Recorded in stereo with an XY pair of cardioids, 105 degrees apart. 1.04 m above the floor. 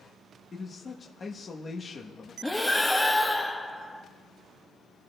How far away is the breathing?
About 1.0 m.